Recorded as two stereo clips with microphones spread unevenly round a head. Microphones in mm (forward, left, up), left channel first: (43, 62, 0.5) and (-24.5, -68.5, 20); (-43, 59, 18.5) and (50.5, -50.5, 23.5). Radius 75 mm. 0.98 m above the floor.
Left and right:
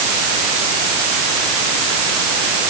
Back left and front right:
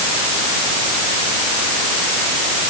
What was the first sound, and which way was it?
Only background noise.